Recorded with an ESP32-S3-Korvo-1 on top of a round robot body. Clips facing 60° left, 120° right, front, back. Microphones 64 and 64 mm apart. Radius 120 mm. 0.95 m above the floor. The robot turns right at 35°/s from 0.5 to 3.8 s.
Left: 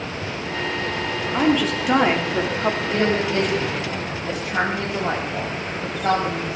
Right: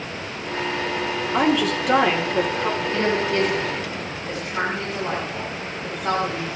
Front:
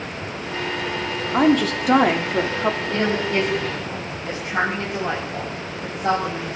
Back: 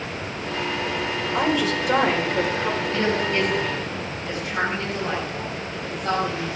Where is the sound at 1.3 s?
40° right, 3 m; by 2.8 s 10° left, 3 m.